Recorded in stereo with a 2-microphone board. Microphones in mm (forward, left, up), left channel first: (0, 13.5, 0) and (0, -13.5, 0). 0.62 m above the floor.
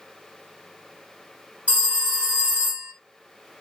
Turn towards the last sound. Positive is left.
turn(degrees=-55)  # may be behind; listen again after turning